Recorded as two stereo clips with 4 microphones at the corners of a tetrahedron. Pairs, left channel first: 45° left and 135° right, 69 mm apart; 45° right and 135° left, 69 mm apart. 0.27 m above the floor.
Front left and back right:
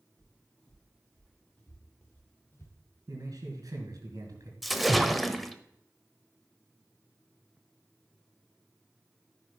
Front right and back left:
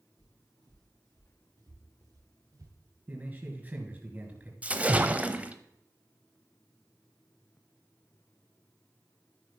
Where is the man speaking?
160° right, 3.5 m.